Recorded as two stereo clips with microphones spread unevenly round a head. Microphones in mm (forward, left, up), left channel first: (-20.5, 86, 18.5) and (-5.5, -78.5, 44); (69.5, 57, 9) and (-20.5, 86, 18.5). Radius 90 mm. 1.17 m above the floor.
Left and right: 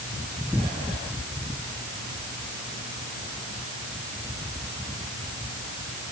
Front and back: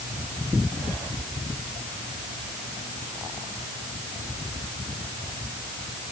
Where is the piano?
I don't hear a piano.